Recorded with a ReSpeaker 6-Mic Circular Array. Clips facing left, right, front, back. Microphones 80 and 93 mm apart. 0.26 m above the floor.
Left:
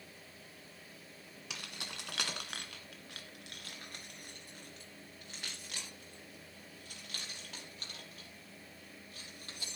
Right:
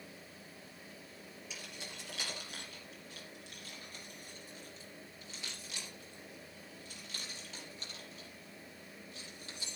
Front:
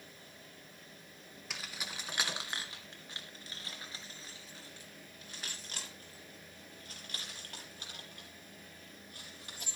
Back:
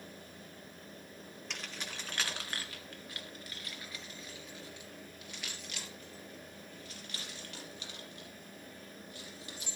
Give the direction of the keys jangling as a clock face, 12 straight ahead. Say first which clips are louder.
Left 3 dB, even; 9 o'clock.